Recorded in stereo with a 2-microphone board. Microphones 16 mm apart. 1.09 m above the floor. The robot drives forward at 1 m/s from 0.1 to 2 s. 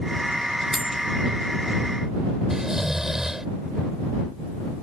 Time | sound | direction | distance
0.7 | cutlery clinking | 10° right (ahead or behind) | ?
2.5 | snoring | 30° right (ahead or behind) | ?